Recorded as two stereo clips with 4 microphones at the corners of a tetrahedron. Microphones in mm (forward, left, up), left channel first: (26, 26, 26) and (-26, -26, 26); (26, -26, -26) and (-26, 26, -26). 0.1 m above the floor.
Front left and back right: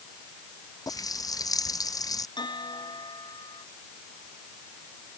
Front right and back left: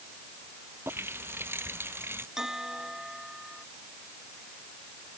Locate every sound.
0.9 s a running tap: 80° left
2.4 s a bell: 50° left